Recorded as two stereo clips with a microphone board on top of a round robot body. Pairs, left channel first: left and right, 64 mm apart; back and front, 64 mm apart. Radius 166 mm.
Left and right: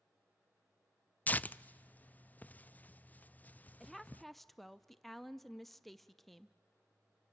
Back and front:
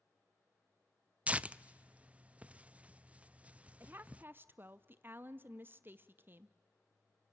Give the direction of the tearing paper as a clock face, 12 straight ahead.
10 o'clock.